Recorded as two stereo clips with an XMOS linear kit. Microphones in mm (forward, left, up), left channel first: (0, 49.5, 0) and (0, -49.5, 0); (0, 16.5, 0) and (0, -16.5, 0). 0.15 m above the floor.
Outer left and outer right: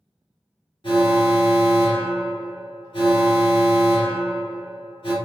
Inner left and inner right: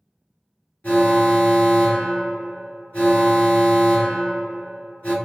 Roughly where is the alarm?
Left.